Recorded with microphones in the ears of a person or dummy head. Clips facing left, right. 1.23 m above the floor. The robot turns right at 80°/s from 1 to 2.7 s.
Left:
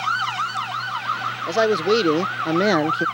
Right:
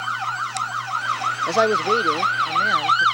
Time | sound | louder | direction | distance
1.5 | a man speaking | left 2 dB | 10° right | ?